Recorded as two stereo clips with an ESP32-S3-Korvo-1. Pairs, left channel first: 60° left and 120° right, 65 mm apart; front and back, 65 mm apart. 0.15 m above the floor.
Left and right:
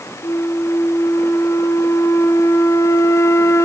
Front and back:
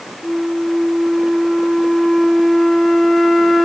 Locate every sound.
0.2 s a flute: 85° left, 0.9 m